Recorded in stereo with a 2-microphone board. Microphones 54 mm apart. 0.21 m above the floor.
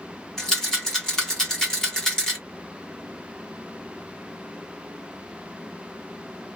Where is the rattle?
10° left (ahead or behind), 1.6 m.